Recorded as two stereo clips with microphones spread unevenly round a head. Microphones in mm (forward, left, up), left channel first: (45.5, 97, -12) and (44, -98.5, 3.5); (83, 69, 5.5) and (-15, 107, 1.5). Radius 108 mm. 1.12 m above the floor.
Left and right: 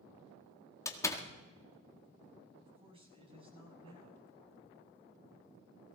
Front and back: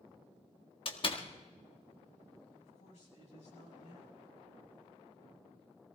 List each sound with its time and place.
0.8 s a door slam: 15° left, 1.8 m
2.6 s a man speaking: 30° right, 7.5 m